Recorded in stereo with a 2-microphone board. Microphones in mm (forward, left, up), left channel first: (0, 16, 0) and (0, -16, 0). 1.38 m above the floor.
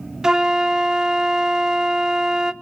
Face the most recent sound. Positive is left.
turn(degrees=-20)  # may be behind; listen again after turning